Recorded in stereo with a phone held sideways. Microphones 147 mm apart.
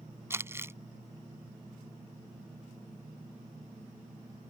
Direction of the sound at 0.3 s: 20° right (ahead or behind).